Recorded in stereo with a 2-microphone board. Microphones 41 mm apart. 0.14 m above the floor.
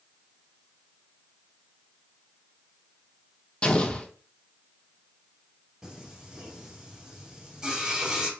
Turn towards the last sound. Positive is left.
turn(degrees=-15)  # may be behind; listen again after turning